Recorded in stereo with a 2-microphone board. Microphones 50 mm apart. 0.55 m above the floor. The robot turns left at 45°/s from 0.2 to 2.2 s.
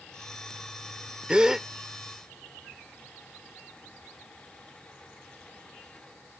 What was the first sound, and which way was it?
A gasp, 20° right (ahead or behind).